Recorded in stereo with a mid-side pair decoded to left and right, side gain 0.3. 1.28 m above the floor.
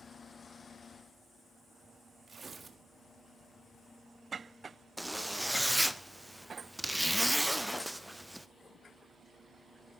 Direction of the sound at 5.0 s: 5° right.